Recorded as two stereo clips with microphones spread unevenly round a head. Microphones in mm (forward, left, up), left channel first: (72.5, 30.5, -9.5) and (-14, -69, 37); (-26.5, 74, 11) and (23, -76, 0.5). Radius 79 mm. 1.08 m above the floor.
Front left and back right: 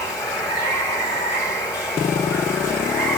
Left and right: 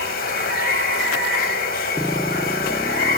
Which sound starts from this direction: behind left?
Running water, at 0.0 s.